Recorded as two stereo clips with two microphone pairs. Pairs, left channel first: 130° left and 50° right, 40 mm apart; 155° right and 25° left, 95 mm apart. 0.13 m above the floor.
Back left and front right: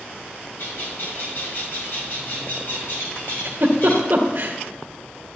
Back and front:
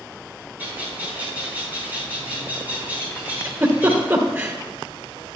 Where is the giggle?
35° right, 2 m.